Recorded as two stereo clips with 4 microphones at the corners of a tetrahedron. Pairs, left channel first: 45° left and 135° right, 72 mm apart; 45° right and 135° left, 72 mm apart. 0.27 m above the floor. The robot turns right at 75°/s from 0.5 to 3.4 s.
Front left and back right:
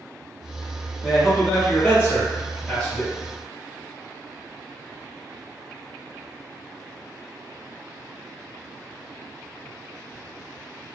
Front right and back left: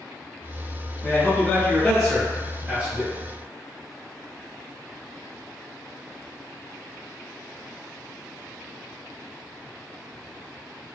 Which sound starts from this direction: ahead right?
A man speaking, at 1.0 s.